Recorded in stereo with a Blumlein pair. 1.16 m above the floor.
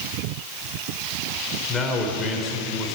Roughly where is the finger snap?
I don't hear a finger snap.